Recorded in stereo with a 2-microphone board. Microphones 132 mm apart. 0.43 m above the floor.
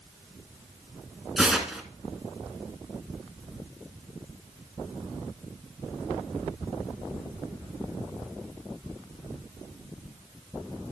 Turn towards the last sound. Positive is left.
turn(degrees=-5)  # may be behind; listen again after turning